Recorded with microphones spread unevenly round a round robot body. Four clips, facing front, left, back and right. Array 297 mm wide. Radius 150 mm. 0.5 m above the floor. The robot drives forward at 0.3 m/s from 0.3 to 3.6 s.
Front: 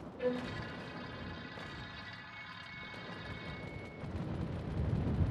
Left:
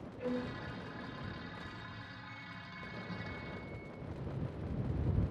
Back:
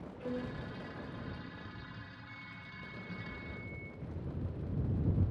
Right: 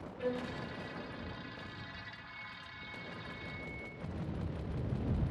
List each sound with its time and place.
0.2 s a violin: 5° right, 1.6 m
2.3 s a flute: 80° left, 1.3 m; by 3.9 s 100° left, 1.3 m
4.0 s an explosion: 40° right, 3 m